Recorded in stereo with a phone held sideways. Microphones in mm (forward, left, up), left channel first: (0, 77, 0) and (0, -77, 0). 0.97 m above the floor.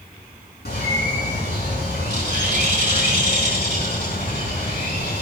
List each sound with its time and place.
0.7 s a bird: 80° left, 4 m